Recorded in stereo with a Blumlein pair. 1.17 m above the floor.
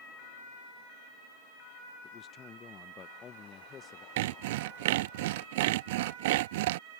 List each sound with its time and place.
2.0 s a man speaking: 25° left
4.2 s sawing: 50° right